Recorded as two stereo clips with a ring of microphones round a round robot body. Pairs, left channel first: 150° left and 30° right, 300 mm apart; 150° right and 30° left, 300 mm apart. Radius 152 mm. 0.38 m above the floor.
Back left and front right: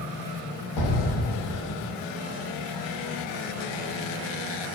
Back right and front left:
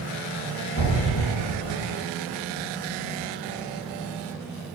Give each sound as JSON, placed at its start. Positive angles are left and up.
{"t": 0.8, "sound": "an explosion", "azimuth_deg": 145, "distance_m": 0.9}